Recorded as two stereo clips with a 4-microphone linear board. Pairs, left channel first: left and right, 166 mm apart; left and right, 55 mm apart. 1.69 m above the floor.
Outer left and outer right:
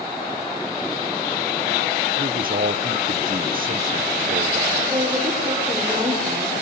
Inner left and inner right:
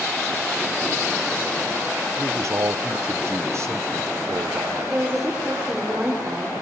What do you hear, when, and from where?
2.2 s a man speaking: 55° right (ahead or behind), 1.4 m
4.8 s a woman speaking: 25° right (ahead or behind), 6 m